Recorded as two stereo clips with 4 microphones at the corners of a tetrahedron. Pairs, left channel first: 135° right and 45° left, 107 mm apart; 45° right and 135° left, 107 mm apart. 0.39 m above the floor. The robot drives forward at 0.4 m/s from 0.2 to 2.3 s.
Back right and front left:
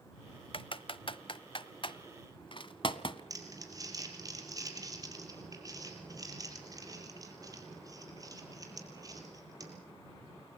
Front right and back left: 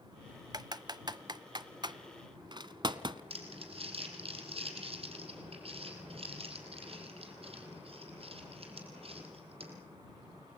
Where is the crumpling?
105° left, 4.5 m.